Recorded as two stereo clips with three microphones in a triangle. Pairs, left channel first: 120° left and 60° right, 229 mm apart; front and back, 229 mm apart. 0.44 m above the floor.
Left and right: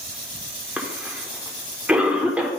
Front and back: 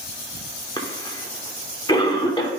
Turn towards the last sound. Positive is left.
turn(degrees=15)